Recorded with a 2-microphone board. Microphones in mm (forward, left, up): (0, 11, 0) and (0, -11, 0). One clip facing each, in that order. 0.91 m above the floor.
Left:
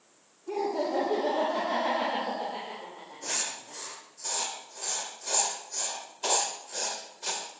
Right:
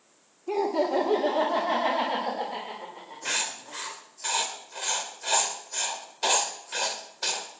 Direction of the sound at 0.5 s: 55° right (ahead or behind).